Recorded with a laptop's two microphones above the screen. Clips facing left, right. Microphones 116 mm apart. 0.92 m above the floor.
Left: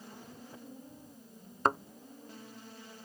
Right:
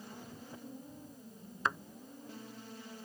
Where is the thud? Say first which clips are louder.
Left 6 dB; 50° left (ahead or behind).